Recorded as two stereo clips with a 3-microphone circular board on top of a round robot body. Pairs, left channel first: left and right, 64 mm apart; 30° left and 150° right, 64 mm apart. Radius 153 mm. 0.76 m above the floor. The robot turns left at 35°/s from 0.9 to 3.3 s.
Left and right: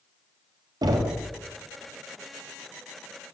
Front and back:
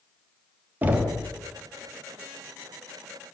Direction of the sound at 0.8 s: 85° right.